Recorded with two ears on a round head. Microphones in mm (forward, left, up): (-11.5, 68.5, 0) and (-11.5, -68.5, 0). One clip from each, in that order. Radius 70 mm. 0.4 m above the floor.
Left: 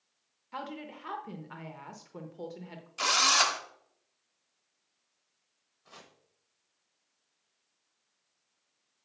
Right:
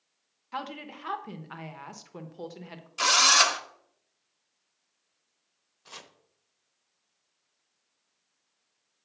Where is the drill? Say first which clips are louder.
Right 4 dB; 15° right (ahead or behind), 0.7 m.